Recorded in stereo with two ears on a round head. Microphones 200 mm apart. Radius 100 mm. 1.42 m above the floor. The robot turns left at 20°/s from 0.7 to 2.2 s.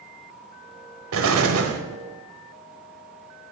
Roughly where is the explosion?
Right.